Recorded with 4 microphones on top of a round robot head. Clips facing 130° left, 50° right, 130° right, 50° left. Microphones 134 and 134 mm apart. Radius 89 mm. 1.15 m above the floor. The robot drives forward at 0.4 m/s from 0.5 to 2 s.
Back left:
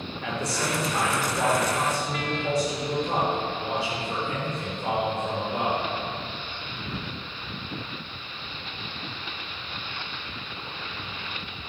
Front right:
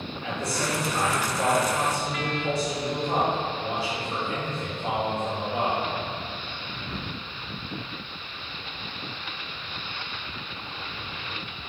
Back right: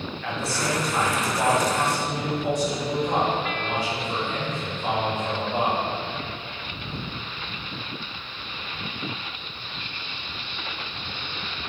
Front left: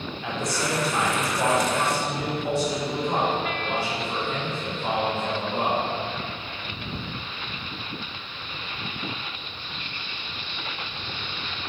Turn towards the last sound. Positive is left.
turn(degrees=155)